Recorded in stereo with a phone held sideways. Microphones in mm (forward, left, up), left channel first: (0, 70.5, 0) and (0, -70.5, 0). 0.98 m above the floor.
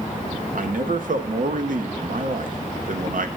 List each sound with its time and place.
0.6 s a man speaking: 70° right (ahead or behind), 0.8 m